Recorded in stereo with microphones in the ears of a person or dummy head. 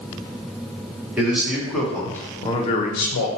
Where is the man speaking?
5° right (ahead or behind), 1.3 m; by 3.3 s 60° left (ahead or behind), 0.6 m.